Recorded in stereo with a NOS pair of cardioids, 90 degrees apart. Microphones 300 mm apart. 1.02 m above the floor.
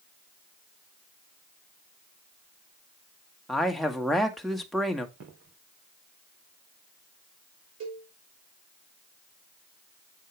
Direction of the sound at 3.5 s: Straight ahead.